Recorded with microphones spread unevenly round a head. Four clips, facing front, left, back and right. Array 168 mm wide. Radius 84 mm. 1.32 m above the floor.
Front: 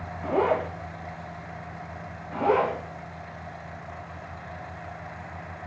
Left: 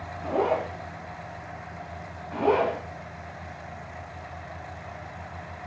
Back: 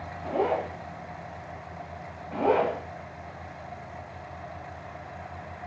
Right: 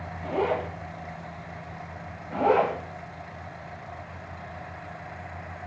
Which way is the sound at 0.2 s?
5° left.